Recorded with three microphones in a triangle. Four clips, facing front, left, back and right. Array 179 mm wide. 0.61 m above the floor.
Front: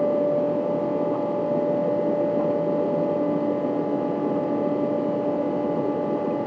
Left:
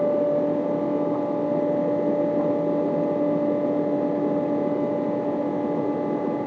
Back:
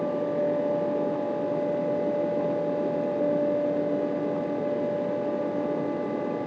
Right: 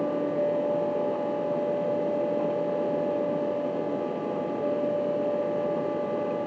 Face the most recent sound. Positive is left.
No sound to turn to.